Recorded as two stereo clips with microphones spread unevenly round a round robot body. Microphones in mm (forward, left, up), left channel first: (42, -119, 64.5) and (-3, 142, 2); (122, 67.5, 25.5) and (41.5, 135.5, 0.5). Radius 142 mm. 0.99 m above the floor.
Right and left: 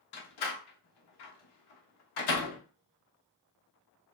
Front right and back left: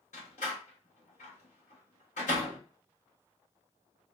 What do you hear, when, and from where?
0.1 s a door slam: 90° right, 0.8 m